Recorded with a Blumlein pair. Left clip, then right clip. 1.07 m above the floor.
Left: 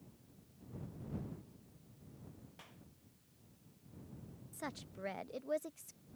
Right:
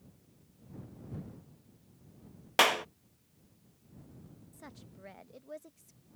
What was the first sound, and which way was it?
A clap, 45° right.